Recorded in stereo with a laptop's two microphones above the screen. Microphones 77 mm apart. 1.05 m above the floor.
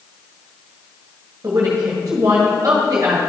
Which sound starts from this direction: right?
A woman speaking, at 1.4 s.